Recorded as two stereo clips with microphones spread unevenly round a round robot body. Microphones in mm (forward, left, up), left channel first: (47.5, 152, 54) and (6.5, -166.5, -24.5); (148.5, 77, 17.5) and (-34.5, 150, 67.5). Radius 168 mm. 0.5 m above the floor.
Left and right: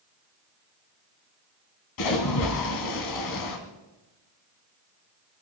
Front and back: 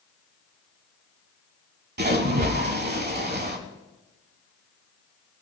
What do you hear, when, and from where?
2.0 s a splash: 120° left, 2.5 m